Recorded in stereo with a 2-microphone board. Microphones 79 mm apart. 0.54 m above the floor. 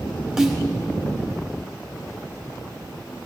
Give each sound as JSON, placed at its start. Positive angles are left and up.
{"t": 0.4, "sound": "a snare drum", "side_deg": -10, "distance_m": 2.0}